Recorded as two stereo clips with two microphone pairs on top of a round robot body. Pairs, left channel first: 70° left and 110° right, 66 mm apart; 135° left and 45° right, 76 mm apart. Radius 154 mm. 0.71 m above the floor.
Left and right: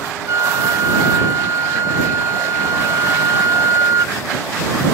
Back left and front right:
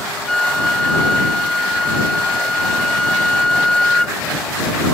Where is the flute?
145° right.